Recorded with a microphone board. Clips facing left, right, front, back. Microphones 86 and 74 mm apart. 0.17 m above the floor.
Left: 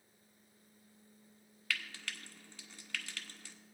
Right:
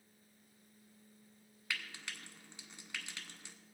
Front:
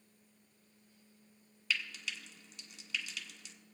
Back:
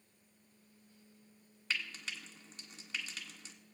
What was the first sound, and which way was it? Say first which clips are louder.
Frying: left 2 dB, front 2 dB; 150° right.